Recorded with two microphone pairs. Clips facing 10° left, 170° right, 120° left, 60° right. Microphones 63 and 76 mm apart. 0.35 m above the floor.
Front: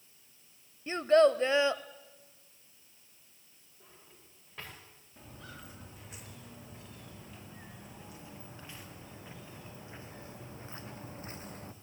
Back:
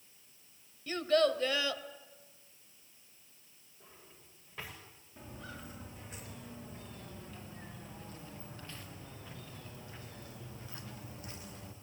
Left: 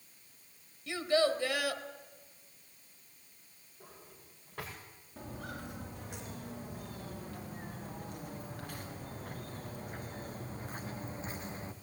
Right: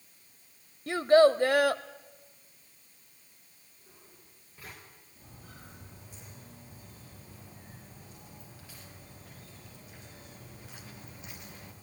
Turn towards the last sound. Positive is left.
turn(degrees=60)